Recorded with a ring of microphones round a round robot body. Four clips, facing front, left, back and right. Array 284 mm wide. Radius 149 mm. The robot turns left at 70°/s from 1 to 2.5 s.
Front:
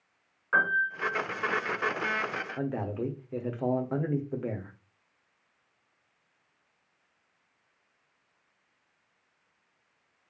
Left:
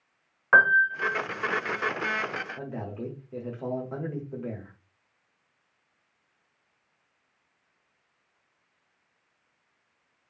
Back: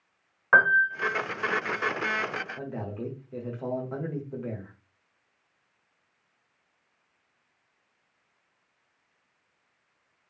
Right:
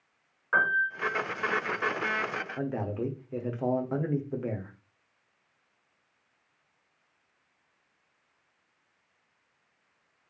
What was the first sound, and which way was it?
A piano, 135° left.